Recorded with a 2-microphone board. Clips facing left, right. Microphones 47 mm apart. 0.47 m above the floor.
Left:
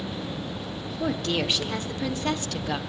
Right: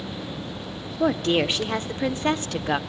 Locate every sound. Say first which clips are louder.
1.0 s a woman speaking: right 6 dB; 30° right (ahead or behind), 0.8 m